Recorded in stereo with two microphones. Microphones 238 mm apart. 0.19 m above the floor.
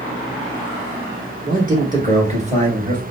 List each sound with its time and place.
1.5 s a man speaking: 40° right (ahead or behind), 3 m; by 3.0 s 25° right (ahead or behind), 3.5 m